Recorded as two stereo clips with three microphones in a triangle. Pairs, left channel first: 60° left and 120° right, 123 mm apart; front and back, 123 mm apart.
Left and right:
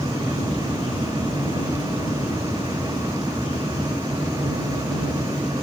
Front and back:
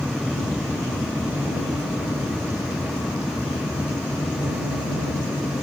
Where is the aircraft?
65° left; by 5.6 s 20° left.